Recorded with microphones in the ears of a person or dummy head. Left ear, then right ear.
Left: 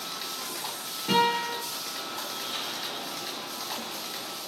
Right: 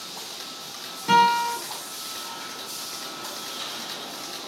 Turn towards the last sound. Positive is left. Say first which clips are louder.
# right 6 dB
turn(degrees=-30)  # may be behind; listen again after turning